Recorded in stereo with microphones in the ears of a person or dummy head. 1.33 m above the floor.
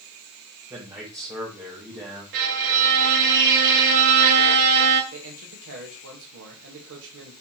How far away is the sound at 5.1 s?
About 1.6 m.